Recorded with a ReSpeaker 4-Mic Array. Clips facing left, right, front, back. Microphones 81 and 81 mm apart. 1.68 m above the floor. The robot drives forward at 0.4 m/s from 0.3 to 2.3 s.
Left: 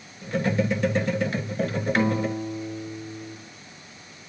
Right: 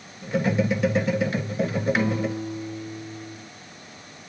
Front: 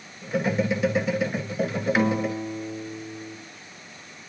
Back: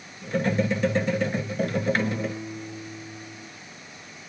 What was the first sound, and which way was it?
A guitar, 25° left.